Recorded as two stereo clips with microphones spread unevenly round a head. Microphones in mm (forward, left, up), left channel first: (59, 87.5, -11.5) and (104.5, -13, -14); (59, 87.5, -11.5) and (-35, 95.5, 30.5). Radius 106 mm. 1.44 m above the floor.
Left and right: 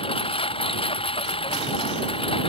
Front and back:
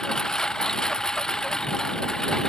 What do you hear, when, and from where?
0.0 s a lawn mower: 80° left